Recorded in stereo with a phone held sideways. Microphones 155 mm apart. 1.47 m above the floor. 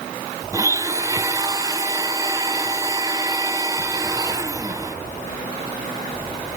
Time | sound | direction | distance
0.5 | a blender | 20° right (ahead or behind) | 0.5 m